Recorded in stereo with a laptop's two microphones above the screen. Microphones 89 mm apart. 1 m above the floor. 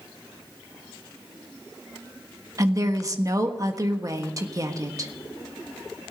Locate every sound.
2.6 s a woman speaking: 35° right (ahead or behind), 1.3 m